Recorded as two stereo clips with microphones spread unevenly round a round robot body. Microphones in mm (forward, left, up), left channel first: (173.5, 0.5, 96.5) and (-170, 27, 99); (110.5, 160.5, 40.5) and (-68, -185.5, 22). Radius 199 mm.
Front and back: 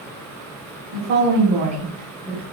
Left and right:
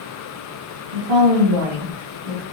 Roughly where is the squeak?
No squeak in this recording.